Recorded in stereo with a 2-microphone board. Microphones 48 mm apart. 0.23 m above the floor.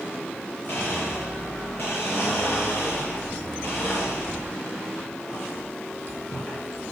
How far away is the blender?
About 5 m.